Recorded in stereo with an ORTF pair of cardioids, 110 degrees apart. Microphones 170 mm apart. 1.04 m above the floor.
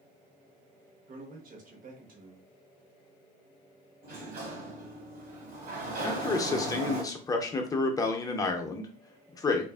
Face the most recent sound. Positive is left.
turn(degrees=20)